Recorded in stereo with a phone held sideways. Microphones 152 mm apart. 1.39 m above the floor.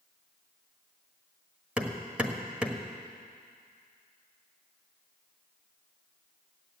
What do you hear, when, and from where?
1.8 s hammering: 10° right (ahead or behind), 1.4 m